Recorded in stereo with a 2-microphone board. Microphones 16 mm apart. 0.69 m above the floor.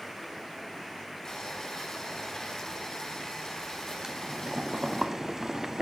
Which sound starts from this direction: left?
Boiling, at 1.2 s.